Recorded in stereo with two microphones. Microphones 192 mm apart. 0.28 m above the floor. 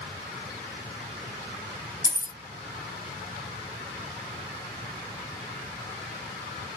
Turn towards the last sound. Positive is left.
turn(degrees=-15)  # may be behind; listen again after turning